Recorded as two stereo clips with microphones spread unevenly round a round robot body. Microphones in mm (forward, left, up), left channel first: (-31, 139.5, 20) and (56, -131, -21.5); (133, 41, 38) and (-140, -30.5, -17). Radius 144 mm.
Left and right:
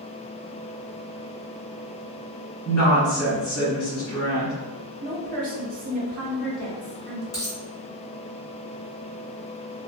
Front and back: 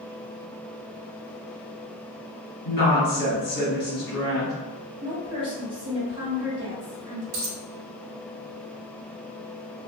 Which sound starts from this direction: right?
A woman speaking, at 5.0 s.